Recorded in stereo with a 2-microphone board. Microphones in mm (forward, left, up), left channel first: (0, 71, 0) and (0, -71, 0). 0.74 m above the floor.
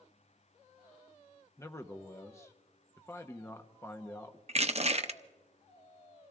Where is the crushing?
50° right (ahead or behind), 0.6 m.